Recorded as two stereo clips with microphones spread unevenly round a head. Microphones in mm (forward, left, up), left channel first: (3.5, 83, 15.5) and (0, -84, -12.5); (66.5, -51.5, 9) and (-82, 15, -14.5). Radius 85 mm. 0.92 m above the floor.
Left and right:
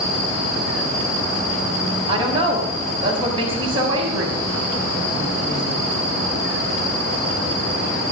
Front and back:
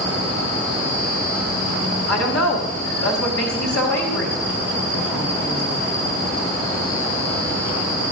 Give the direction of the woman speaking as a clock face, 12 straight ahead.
1 o'clock.